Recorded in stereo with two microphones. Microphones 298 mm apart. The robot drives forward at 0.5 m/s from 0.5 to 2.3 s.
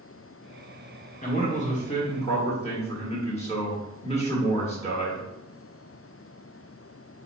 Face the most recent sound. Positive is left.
turn(degrees=20)  # may be behind; listen again after turning